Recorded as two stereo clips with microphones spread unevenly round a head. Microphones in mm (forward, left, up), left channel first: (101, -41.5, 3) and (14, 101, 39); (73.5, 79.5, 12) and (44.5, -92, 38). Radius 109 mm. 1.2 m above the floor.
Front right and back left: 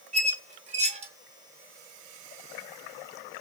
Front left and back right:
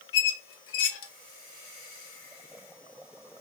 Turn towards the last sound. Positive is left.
turn(degrees=85)